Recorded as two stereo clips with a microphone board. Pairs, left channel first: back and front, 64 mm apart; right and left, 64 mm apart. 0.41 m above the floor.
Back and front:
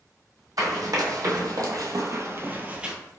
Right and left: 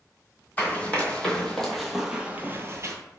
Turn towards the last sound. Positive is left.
turn(degrees=75)